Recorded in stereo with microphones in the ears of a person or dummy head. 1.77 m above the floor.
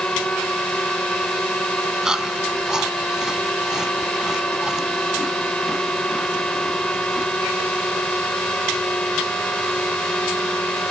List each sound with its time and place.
0.0 s a drone: 5° left (ahead or behind)
2.0 s chewing: 5° right (ahead or behind)